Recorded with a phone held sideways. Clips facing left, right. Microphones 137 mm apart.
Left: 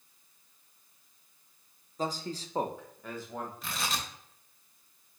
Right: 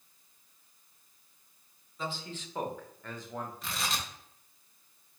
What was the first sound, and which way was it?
A man speaking, 40° left (ahead or behind).